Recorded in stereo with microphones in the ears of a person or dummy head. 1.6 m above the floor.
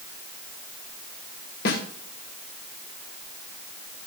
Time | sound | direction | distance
1.6 | a snare drum | 50° left (ahead or behind) | 2.0 m